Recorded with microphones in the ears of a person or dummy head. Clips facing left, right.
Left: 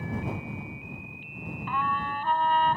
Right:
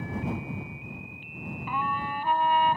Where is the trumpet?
10° right (ahead or behind).